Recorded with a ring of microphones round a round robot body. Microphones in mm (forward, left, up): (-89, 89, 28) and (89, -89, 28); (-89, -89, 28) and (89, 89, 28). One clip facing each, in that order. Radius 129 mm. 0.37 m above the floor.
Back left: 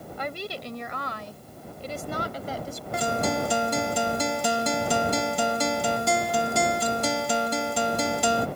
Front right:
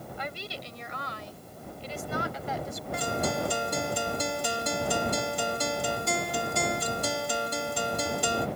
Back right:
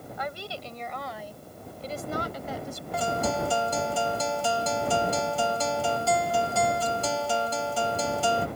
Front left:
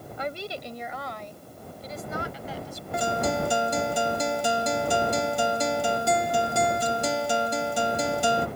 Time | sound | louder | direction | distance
0.2 | a woman speaking | back left 8 dB, front left 4 dB | 105° left | ?
2.9 | a guitar | back left 4 dB, front left 2 dB | 120° left | ?